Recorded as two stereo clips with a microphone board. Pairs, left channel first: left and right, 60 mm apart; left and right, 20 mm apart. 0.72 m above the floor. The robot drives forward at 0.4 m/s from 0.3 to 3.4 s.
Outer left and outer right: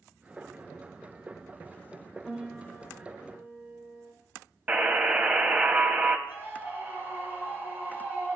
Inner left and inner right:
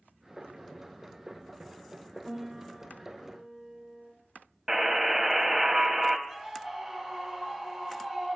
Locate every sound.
2.2 s a piano: 5° right (ahead or behind), 0.7 m
4.7 s a buzzer: 20° right (ahead or behind), 0.6 m
6.3 s a scream: 30° right (ahead or behind), 3.5 m